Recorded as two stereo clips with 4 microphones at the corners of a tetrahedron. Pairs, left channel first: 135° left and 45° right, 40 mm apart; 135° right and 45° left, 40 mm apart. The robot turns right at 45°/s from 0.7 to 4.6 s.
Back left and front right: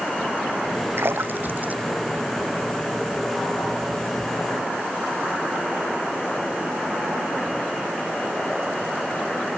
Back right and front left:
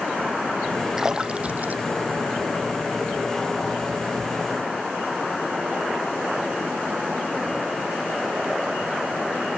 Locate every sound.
1.0 s a splash: 30° right; by 3.0 s 60° left